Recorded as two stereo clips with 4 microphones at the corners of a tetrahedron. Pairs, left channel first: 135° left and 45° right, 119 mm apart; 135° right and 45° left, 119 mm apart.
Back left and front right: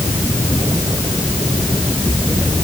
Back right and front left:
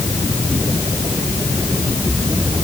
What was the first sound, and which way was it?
Only background noise.